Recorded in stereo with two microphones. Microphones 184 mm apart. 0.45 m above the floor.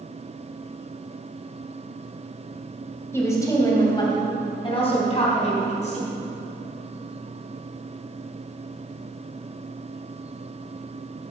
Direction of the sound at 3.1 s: 15° left (ahead or behind).